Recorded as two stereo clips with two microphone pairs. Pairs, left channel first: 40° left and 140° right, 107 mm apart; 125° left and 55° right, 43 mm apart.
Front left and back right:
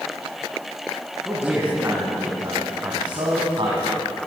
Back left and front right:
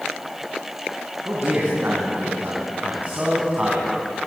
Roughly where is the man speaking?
Right.